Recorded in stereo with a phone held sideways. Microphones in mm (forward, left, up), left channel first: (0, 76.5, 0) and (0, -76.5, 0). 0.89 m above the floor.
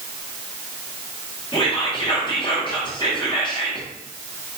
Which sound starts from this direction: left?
Whispering, at 1.5 s.